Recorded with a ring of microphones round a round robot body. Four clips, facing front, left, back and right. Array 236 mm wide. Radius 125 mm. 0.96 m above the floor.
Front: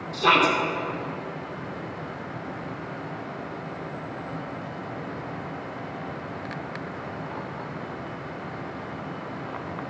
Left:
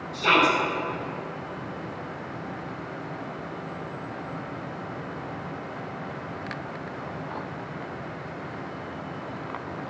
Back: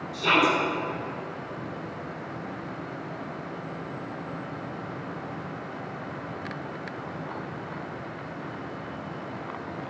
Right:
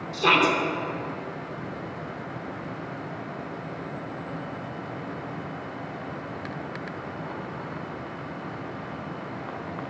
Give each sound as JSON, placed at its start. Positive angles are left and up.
{"t": 0.1, "sound": "a shout", "azimuth_deg": -55, "distance_m": 3.0}